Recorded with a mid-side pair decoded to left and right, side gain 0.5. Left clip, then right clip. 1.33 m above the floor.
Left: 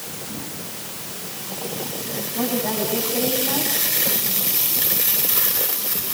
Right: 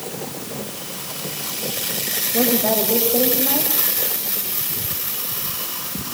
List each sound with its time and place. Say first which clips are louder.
2.3 s a woman speaking: right 5 dB; 65° right, 8.5 m